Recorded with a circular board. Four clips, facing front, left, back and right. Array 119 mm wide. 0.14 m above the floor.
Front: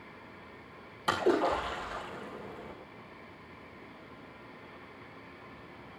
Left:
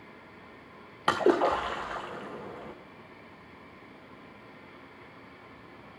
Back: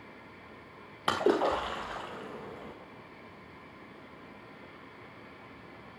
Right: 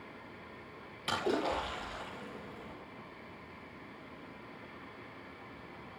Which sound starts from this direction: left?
A splash, at 1.1 s.